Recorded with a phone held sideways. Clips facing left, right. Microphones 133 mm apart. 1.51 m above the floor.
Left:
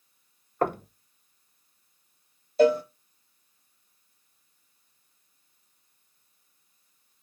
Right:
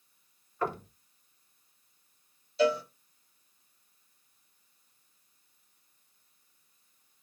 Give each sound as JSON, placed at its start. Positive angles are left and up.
{"t": 0.6, "sound": "knocking", "side_deg": 55, "distance_m": 0.8}
{"t": 2.6, "sound": "a cowbell", "side_deg": 50, "distance_m": 1.0}